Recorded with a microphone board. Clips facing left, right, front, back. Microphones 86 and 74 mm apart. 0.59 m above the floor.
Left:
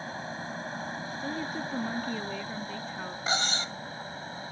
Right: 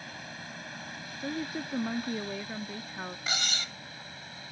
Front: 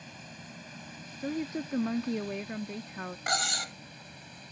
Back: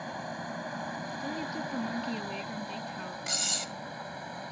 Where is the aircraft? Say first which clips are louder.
Left 7 dB, back 11 dB; 145° left.